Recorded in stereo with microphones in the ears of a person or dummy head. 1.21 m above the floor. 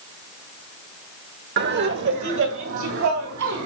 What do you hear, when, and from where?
1.6 s laughter: 55° right (ahead or behind), 1.3 m; by 3.7 s 70° right (ahead or behind), 3 m